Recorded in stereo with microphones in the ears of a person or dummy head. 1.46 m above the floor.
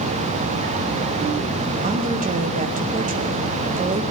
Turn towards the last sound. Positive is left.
turn(degrees=-40)  # may be behind; listen again after turning